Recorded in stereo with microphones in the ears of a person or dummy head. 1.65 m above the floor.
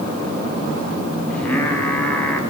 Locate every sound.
1.3 s singing: 10° left (ahead or behind), 4.5 m